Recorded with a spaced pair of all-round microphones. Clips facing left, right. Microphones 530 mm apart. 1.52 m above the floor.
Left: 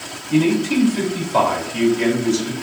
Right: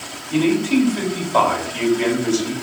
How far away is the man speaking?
About 2.5 m.